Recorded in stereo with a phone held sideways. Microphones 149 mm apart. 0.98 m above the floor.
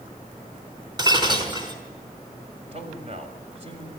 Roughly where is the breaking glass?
Right.